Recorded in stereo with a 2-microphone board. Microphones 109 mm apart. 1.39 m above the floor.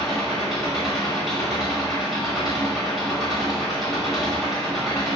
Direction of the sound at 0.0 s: Centre (ahead or behind).